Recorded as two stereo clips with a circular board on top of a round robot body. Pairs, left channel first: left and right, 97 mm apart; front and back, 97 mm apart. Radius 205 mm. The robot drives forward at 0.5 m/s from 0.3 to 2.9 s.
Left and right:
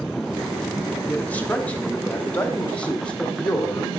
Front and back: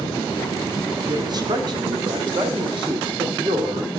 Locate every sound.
1.1 s a man speaking: 160° left, 1.9 m; by 3.9 s 165° left, 2.5 m